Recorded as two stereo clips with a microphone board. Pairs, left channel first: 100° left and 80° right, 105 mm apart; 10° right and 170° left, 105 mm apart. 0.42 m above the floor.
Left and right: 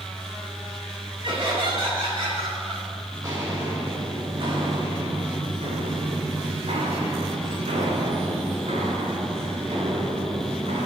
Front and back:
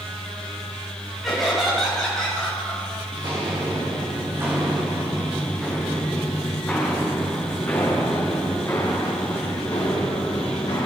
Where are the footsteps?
140° right, 3 m; by 10.9 s 60° right, 5 m.